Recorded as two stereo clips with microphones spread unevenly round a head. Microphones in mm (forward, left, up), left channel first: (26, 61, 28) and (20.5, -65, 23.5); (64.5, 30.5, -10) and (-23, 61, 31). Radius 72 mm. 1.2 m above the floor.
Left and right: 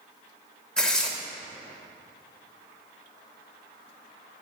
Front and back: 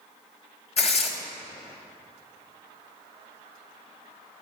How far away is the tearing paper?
About 1.8 m.